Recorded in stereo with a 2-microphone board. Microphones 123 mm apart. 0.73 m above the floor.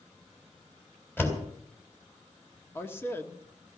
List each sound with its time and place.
1.2 s a door slam: 15° left (ahead or behind), 3.5 m
2.8 s a man speaking: 20° left (ahead or behind), 1.4 m